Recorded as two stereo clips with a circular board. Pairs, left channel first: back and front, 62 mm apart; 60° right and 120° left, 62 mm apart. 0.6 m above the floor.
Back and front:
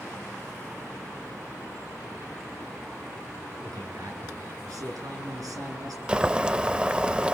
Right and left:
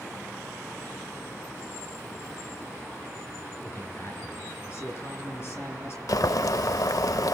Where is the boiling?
75° right, 0.6 m.